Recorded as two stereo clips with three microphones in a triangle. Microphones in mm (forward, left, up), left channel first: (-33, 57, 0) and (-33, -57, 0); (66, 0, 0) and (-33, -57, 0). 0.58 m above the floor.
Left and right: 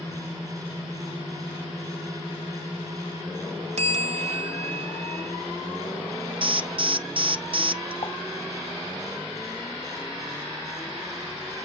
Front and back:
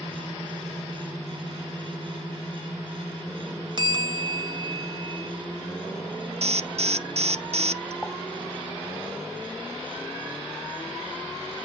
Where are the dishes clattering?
115° left, 1.0 m.